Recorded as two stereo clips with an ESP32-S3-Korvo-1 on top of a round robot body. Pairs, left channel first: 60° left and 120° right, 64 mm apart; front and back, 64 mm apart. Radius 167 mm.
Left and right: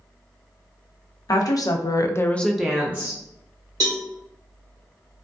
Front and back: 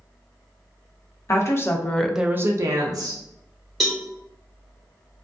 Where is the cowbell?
90° right, 0.7 m.